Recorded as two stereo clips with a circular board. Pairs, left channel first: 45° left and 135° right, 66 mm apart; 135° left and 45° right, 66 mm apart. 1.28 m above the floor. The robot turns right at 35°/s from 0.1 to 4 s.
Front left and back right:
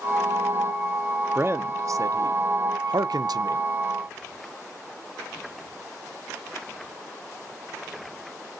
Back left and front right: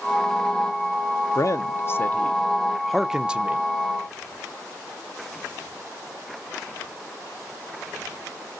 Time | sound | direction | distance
1.4 | a man speaking | 170° left | 0.6 m